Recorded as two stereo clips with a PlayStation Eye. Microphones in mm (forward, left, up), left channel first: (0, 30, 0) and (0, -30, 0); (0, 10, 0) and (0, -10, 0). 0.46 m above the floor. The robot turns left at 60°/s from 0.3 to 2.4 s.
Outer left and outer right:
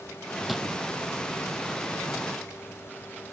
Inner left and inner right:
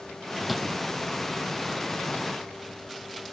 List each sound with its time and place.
0.5 s a drawer: centre (ahead or behind); by 0.7 s 10° left (ahead or behind)